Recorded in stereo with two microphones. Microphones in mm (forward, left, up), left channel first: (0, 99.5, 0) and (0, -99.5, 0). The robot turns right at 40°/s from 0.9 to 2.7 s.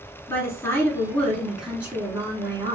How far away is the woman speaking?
About 1.8 m.